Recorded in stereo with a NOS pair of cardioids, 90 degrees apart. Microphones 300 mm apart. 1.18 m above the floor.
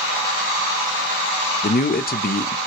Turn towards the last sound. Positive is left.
turn(degrees=30)